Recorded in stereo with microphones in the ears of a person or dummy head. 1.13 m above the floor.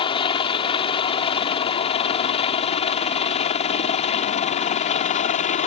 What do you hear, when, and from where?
0.0 s a helicopter: 20° left (ahead or behind); by 5.7 s 30° left (ahead or behind)